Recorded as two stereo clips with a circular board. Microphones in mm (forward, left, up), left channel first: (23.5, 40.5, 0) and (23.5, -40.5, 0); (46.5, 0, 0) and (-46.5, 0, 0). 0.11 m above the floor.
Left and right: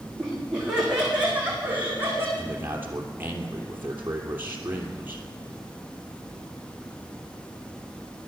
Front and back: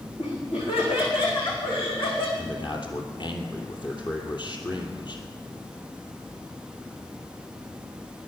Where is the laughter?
5° right, 7.5 m; by 2.3 s 25° right, 6.5 m.